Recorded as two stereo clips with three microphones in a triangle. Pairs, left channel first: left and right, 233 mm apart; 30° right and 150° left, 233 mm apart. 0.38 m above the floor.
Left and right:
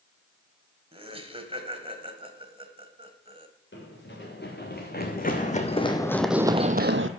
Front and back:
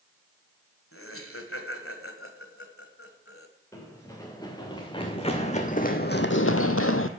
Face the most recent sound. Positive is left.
turn(degrees=-60)